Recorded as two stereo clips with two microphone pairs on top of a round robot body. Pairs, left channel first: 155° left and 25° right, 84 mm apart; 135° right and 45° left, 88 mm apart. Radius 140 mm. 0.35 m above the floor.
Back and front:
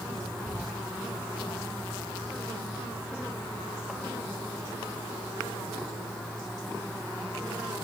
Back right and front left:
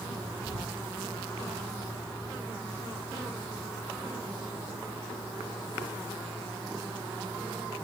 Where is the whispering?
105° left, 2.5 m.